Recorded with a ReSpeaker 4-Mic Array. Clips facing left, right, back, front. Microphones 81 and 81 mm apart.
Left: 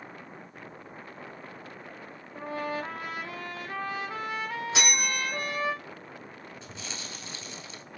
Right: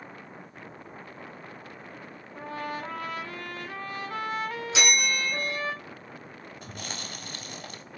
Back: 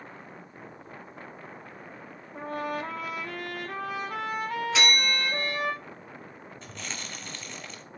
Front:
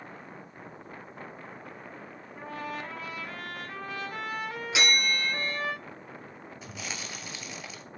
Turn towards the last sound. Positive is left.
turn(degrees=-80)